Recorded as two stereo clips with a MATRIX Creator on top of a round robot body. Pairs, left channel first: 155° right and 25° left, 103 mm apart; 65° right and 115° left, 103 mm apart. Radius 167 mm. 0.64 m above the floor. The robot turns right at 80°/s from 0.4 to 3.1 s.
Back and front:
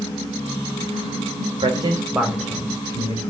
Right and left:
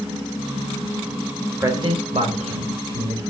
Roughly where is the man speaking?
Ahead left.